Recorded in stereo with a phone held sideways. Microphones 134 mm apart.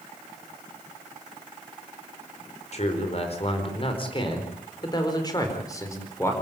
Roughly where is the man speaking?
Left.